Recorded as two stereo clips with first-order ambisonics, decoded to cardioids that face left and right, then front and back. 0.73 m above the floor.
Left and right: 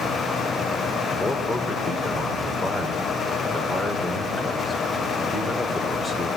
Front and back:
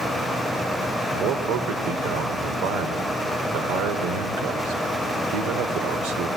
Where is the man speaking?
165° left, 3 m.